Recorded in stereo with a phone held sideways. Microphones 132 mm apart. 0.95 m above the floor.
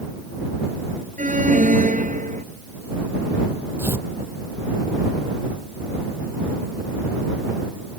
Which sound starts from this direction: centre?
Tearing paper, at 3.8 s.